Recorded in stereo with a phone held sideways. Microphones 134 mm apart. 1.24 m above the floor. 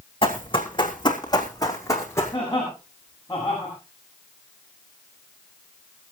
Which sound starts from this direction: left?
Running footsteps, at 0.2 s.